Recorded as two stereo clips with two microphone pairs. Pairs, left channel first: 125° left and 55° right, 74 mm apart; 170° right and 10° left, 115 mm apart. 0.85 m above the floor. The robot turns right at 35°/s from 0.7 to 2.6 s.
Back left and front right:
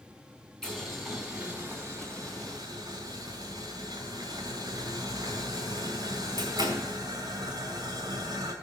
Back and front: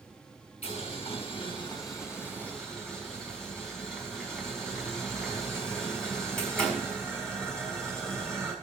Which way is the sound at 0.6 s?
155° right.